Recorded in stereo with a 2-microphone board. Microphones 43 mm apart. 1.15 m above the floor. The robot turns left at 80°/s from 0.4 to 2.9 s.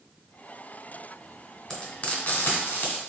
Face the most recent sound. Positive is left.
turn(degrees=50)  # may be behind; listen again after turning